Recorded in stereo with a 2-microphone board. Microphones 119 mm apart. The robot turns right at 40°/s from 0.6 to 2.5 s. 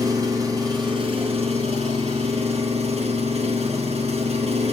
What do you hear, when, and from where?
0.0 s an engine running: 145° right, 4.5 m; by 4.7 s 70° right, 4.5 m